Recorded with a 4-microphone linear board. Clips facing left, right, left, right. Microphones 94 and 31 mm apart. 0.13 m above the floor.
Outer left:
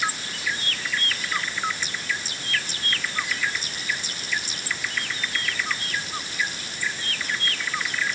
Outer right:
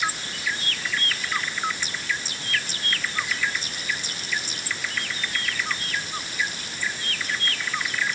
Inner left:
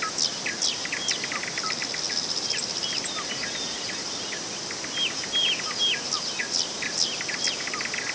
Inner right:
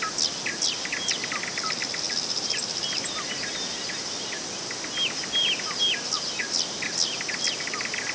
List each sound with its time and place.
Only background noise.